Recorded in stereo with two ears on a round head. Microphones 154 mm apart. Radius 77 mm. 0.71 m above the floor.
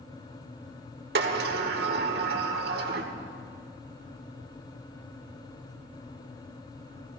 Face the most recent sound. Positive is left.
turn(degrees=-65)  # may be behind; listen again after turning